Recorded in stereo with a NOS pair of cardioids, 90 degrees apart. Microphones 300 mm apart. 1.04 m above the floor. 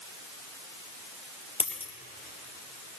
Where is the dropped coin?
20° left, 3 m.